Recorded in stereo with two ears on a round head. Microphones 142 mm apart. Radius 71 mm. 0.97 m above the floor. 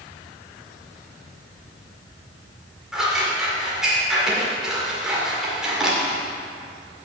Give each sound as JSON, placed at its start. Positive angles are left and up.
{"t": 2.9, "sound": "scissors", "side_deg": -5, "distance_m": 2.0}